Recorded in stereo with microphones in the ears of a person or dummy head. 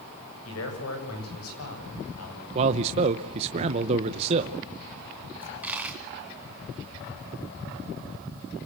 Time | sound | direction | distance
0.5 | a man speaking | 85° left | 8 m
2.5 | a man speaking | 35° right (ahead or behind) | 1.0 m
5.4 | a dropped coin | 10° right (ahead or behind) | 3 m